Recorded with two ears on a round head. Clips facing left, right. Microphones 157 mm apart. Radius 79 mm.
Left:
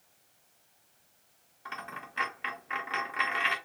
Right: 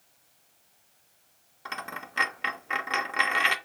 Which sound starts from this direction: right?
A dropped coin, at 1.6 s.